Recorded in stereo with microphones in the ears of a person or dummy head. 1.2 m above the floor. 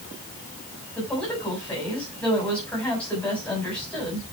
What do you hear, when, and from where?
0.9 s a woman speaking: 5° left (ahead or behind), 6.5 m